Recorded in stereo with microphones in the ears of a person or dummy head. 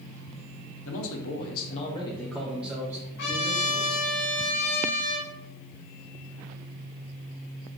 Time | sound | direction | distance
0.8 | a man speaking | 85° left | 0.9 m
3.2 | a trumpet | 60° left (ahead or behind) | 1.2 m